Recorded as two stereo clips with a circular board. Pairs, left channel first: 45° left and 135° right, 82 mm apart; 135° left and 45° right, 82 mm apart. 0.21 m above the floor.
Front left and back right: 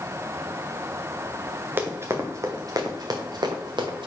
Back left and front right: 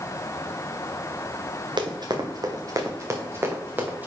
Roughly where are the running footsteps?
Right.